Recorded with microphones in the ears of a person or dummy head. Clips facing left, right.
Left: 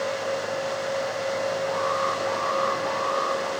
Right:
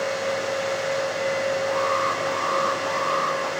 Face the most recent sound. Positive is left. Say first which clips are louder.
# right 2 dB
turn(degrees=-45)  # may be behind; listen again after turning